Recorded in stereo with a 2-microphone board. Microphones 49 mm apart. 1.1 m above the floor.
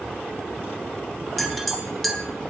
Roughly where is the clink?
Centre.